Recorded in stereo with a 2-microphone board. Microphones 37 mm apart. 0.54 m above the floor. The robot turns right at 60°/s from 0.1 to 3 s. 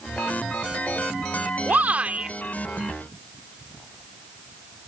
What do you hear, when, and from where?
1.7 s a shout: 80° right; by 2.3 s 40° right